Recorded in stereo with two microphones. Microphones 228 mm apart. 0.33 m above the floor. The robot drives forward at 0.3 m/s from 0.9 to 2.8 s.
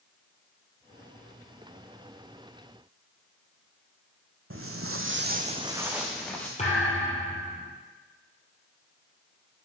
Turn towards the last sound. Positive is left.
turn(degrees=30)  # may be behind; listen again after turning